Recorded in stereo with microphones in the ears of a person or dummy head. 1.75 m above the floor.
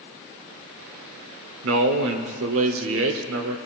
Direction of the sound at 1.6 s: 75° right (ahead or behind).